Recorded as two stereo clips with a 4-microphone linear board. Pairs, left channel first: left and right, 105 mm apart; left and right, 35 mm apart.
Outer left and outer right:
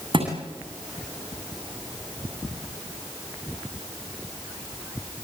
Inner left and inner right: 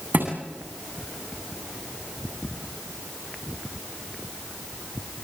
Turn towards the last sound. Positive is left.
turn(degrees=-50)  # may be behind; listen again after turning